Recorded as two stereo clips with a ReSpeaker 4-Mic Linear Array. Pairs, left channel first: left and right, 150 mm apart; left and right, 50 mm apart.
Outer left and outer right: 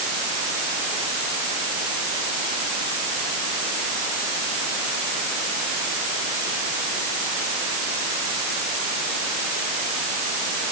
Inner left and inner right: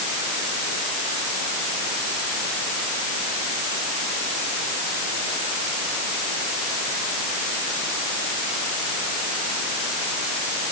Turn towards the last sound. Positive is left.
No sound to turn to.